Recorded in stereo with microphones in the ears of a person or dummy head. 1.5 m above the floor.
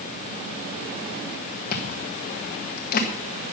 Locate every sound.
1.7 s chewing: 45° left (ahead or behind), 1.4 m